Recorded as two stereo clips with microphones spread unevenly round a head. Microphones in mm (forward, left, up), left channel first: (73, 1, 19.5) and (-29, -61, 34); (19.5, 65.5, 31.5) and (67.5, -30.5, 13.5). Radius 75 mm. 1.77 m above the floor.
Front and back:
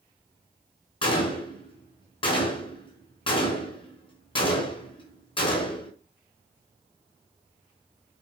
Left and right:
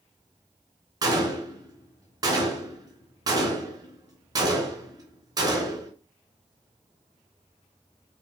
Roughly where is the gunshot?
Ahead.